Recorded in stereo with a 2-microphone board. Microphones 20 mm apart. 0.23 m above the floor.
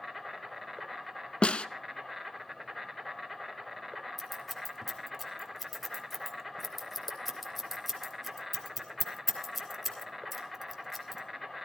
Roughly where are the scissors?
Centre.